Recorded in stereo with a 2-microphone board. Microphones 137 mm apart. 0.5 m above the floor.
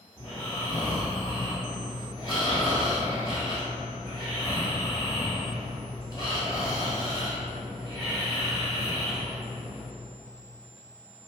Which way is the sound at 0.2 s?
30° left (ahead or behind).